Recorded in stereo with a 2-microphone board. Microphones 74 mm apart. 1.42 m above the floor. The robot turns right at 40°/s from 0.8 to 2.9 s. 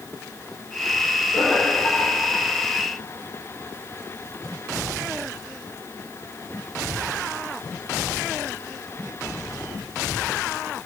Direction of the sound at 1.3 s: 75° left (ahead or behind).